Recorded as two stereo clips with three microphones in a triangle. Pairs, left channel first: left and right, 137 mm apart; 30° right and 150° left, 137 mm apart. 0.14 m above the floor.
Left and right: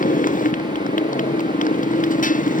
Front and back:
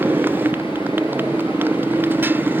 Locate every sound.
0.0 s a motorcycle: 75° left